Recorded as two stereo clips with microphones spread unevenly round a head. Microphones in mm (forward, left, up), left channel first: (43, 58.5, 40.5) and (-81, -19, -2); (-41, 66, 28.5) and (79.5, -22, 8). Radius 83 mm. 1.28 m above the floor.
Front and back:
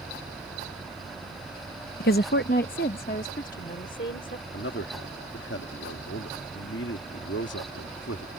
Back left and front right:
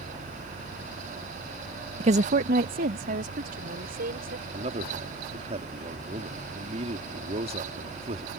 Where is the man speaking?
15° left.